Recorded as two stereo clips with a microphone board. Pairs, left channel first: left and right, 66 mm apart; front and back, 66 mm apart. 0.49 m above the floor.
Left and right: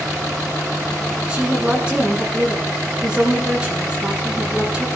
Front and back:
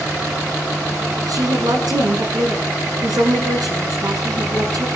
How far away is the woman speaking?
About 6.5 m.